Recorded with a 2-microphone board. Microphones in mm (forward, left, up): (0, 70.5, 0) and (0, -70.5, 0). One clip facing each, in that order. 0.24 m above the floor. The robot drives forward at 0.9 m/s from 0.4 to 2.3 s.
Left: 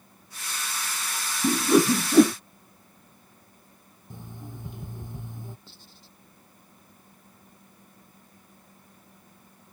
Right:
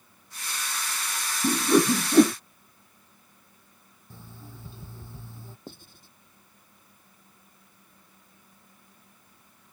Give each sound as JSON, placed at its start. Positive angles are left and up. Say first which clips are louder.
{"t": 1.4, "sound": "a whoosh", "louder": "left 1 dB", "side_deg": 5}
{"t": 4.1, "sound": "an alarm clock", "louder": "left 5 dB", "side_deg": 15}
{"t": 5.7, "sound": "writing", "louder": "right 8 dB", "side_deg": -50}